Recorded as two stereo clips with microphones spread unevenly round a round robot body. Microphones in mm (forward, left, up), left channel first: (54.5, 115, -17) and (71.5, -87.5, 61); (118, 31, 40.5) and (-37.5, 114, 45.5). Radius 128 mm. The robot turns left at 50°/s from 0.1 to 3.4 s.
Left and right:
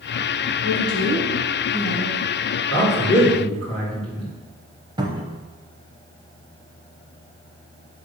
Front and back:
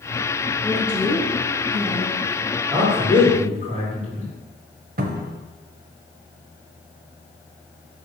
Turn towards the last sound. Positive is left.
turn(degrees=-165)